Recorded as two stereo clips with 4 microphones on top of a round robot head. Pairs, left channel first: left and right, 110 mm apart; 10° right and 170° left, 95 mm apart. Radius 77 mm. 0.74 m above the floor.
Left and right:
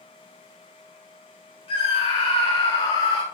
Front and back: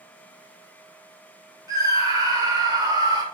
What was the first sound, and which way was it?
A scream, 120° left.